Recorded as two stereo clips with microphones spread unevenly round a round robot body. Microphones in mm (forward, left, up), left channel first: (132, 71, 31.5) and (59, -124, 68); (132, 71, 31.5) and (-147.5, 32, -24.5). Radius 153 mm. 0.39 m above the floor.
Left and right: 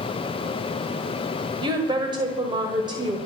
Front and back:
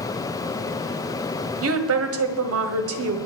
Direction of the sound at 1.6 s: 175° left.